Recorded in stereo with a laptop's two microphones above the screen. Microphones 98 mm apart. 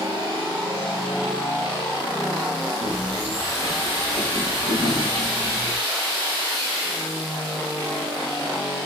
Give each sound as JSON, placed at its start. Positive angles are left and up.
{"t": 2.8, "sound": "footsteps", "side_deg": -75, "distance_m": 10.0}